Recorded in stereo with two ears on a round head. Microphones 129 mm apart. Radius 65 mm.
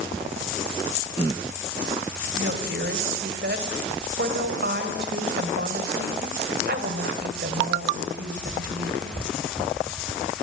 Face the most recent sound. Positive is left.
turn(degrees=-70)  # may be behind; listen again after turning